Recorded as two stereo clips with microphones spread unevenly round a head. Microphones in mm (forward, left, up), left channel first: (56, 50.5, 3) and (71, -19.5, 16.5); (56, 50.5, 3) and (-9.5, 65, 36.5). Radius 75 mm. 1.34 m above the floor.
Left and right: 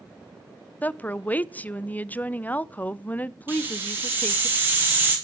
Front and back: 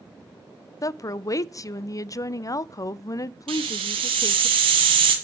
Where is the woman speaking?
30° left, 0.5 m.